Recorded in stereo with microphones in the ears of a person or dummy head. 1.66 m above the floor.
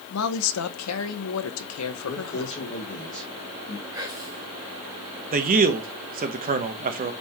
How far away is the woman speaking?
About 0.8 m.